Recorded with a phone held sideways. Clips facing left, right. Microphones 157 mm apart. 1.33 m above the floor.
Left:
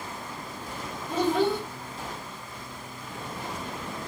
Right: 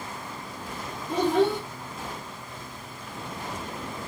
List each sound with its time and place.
1.1 s a child speaking: centre (ahead or behind), 1.4 m